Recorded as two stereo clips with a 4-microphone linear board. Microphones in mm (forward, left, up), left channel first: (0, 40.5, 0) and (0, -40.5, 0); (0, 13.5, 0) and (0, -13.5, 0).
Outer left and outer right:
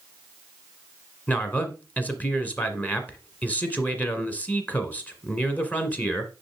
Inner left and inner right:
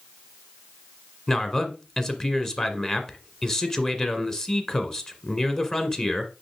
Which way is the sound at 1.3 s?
20° left (ahead or behind).